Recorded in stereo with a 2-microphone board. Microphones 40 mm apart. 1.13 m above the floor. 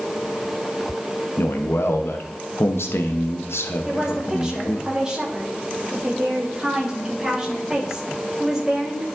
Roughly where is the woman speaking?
Centre.